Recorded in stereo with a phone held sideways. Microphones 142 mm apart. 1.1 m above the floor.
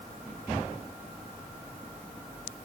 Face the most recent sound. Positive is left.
No sound to turn to.